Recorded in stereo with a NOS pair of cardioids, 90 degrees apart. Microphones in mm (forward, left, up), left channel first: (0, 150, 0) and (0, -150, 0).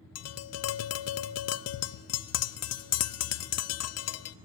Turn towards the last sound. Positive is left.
turn(degrees=55)